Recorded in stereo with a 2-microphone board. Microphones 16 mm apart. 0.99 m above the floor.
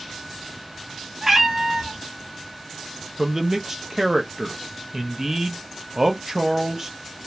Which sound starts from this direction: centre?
A cat meowing, at 1.2 s.